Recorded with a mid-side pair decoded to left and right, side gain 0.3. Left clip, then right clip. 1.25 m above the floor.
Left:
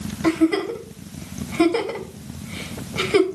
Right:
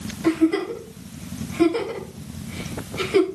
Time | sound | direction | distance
0.2 | a giggle | 55° left | 4.5 m